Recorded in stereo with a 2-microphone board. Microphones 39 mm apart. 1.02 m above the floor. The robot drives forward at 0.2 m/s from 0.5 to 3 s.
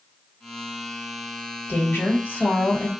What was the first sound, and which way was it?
A woman speaking, 55° left (ahead or behind).